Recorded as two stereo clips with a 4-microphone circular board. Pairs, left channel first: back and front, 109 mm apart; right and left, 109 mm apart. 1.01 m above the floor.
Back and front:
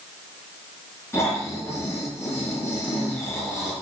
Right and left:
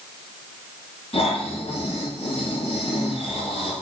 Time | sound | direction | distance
1.1 | snoring | 115° right | 6 m